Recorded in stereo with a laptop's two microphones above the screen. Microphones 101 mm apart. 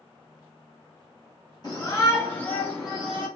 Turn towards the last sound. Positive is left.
turn(degrees=-10)  # may be behind; listen again after turning